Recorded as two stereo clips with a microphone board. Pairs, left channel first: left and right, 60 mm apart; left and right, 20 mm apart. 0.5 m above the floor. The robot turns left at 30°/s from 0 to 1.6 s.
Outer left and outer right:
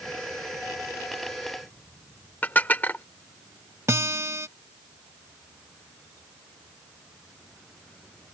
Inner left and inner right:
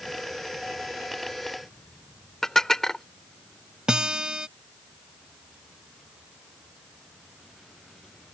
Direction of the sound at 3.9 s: 50° right (ahead or behind).